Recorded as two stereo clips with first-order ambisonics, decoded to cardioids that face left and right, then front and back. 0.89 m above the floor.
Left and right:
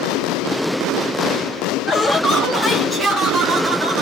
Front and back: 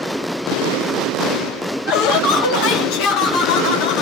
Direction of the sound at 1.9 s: 20° left.